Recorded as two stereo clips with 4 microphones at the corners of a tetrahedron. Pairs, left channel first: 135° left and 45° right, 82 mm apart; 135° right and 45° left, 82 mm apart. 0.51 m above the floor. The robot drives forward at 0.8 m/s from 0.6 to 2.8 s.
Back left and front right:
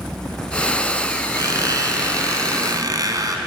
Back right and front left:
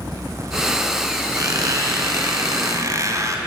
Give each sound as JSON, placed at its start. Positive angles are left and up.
{"t": 1.4, "sound": "a squeak", "azimuth_deg": 0, "distance_m": 4.0}